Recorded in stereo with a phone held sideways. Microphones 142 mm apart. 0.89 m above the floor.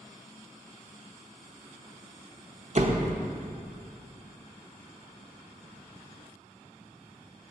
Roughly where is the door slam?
Right.